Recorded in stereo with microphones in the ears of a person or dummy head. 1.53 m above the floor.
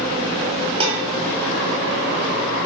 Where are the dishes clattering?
30° right (ahead or behind), 2.5 m.